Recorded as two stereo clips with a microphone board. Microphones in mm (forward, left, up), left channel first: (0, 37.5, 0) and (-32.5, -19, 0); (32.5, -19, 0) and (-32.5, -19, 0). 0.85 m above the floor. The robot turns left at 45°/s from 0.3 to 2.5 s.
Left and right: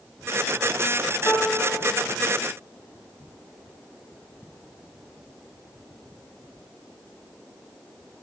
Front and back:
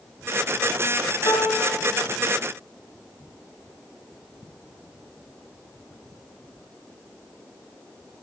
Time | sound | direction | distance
1.2 | a piano | 10° left | 1.5 m